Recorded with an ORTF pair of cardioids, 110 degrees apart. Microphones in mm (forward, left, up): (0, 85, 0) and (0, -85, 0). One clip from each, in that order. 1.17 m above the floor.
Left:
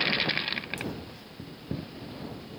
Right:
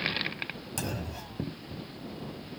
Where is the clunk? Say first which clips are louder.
Right 2 dB; 70° right.